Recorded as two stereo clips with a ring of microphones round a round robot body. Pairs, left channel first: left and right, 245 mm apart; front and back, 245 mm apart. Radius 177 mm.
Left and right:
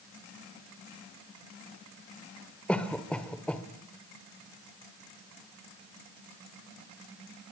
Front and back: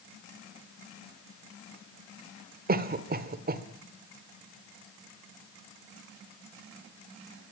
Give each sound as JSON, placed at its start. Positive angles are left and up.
{"t": 2.7, "sound": "a cough", "azimuth_deg": 175, "distance_m": 1.5}